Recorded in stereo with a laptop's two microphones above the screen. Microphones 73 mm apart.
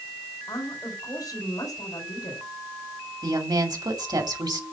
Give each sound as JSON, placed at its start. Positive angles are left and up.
{"t": 0.5, "sound": "a woman speaking", "side_deg": 60, "distance_m": 4.0}
{"t": 3.2, "sound": "a woman speaking", "side_deg": -70, "distance_m": 2.0}